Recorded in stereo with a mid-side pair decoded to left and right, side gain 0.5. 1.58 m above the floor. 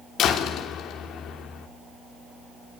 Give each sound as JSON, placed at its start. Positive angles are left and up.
{"t": 0.2, "sound": "a door slam", "azimuth_deg": 65, "distance_m": 3.5}